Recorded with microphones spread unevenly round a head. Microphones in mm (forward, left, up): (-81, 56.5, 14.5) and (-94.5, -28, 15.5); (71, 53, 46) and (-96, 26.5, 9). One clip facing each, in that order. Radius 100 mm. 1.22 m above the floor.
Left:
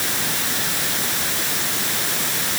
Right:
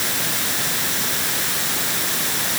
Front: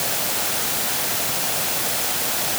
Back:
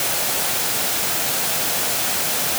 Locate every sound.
Only background noise.